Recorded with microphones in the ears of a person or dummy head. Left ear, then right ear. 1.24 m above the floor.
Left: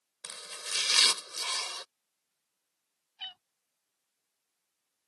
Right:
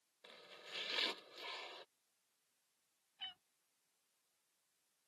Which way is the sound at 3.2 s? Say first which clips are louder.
Left 8 dB; 30° left (ahead or behind).